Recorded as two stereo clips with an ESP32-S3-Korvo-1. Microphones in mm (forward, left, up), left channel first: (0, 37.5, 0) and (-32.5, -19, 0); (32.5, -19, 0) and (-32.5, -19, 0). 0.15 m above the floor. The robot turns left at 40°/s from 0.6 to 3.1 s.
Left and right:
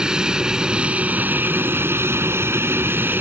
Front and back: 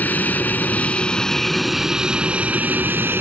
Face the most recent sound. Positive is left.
turn(degrees=-150)